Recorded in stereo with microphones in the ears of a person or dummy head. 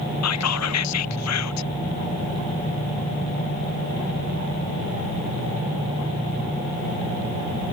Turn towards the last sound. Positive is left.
turn(degrees=85)